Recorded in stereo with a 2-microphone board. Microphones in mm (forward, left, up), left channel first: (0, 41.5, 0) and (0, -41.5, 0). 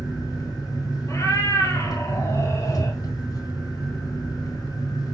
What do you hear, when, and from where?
0.0 s an engine running: 50° left (ahead or behind), 5 m
1.1 s a cat meowing: 35° left (ahead or behind), 3 m